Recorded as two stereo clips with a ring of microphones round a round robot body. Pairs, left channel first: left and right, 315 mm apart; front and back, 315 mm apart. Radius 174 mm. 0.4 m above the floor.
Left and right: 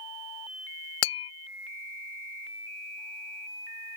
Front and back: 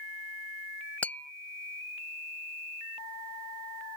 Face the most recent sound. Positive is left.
turn(degrees=85)